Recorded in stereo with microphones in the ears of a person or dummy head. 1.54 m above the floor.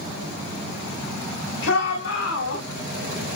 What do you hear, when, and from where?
1.6 s a shout: 75° left (ahead or behind), 4 m; by 2.6 s 80° left, 4.5 m